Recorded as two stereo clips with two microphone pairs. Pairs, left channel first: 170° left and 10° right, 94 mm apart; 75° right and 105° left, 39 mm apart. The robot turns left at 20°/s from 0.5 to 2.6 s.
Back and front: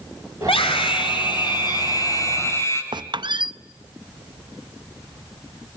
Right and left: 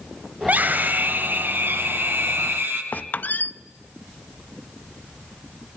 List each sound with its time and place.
0.4 s a scream: 155° left, 6 m; by 2.8 s 110° left, 6 m
2.9 s a squeak: 40° right, 0.6 m